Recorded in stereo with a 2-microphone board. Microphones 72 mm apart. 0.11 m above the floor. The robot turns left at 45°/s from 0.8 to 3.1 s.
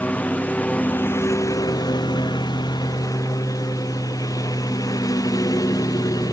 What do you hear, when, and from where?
0.0 s a lawn mower: 20° left (ahead or behind); by 6.3 s 60° left (ahead or behind)